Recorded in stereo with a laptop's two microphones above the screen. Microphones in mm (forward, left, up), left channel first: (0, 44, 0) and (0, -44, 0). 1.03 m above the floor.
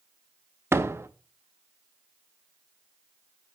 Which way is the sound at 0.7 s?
30° right (ahead or behind).